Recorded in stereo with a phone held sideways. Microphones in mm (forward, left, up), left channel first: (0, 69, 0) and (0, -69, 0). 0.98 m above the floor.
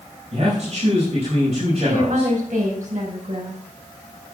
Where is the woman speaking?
70° right (ahead or behind), 5 m.